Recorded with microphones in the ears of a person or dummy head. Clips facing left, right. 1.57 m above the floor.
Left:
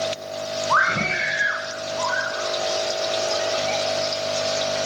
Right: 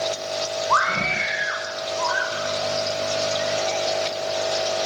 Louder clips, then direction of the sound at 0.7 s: Even; 30° left (ahead or behind).